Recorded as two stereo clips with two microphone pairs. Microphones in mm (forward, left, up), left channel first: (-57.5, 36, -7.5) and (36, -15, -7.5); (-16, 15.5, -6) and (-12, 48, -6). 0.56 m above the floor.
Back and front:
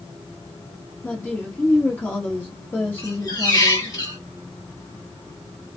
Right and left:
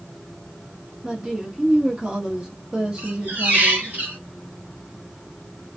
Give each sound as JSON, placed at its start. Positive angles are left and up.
{"t": 1.0, "sound": "a woman speaking", "azimuth_deg": 100, "distance_m": 1.0}
{"t": 3.0, "sound": "a squeak", "azimuth_deg": 100, "distance_m": 1.5}